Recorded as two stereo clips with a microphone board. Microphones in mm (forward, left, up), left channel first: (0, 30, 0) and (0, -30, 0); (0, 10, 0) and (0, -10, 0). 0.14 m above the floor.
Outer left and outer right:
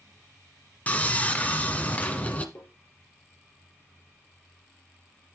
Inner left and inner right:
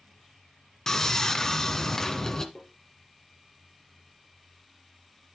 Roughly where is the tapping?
Left.